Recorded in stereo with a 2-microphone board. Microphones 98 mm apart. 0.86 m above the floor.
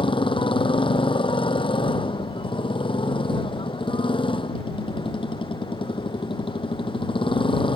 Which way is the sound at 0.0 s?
60° left (ahead or behind).